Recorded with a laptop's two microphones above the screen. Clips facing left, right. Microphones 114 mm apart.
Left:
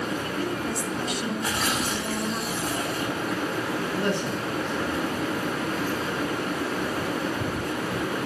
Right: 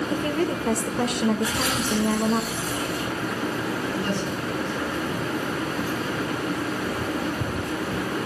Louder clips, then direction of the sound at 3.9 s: Even; 60° left (ahead or behind).